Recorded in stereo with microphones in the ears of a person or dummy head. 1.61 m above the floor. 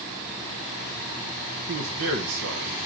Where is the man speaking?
60° right (ahead or behind), 0.9 m; by 2.8 s 70° right (ahead or behind), 1.8 m.